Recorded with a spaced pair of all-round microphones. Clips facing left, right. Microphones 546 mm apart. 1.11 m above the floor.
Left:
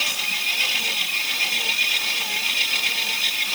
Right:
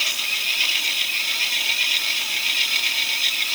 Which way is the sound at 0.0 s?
85° left.